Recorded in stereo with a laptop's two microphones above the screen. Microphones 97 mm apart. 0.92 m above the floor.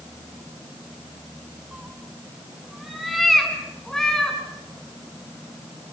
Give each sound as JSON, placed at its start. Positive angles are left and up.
{"t": 1.7, "sound": "a cat meowing", "side_deg": -10, "distance_m": 4.5}